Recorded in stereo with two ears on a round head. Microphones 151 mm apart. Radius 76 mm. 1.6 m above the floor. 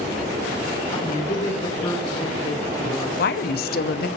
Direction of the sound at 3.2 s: 60° left (ahead or behind).